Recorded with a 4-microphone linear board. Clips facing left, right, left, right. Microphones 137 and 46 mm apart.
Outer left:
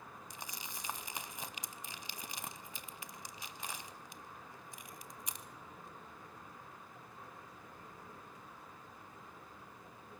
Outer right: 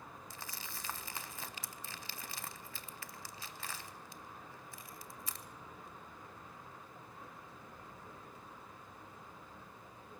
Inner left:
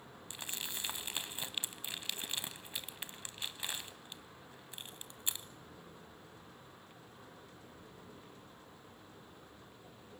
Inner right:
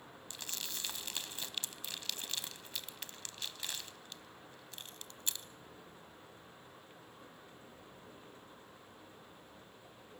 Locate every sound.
0.3 s crumpling: 20° left (ahead or behind), 0.8 m